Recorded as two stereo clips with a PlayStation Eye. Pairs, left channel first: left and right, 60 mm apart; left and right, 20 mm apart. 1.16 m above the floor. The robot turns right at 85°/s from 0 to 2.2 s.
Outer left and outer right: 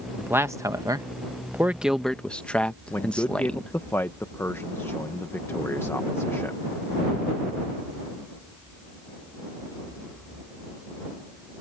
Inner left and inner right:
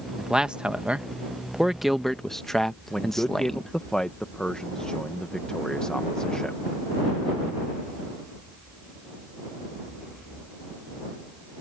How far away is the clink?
No clink in this recording.